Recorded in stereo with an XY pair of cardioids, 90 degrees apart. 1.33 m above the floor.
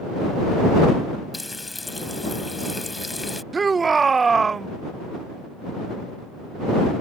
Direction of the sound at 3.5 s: 40° right.